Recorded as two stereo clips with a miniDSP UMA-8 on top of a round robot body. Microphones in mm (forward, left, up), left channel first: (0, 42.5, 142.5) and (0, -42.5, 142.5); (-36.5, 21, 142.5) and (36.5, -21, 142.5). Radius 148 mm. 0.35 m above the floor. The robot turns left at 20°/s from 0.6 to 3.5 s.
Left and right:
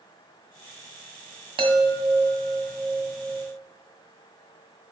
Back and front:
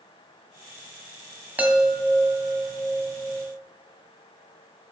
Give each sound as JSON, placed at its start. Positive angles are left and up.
{"t": 1.6, "sound": "a chime", "azimuth_deg": -100, "distance_m": 1.8}